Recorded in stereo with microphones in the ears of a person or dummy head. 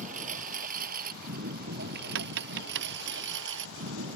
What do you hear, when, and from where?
0.0 s a lawn mower: 40° right (ahead or behind); by 4.2 s 75° right (ahead or behind)
2.1 s tapping: 60° right (ahead or behind)